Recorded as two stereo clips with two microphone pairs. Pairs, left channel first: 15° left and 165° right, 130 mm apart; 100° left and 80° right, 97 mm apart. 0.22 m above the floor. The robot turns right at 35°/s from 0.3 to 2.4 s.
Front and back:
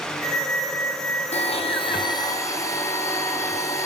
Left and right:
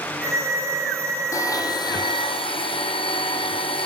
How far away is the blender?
About 3 m.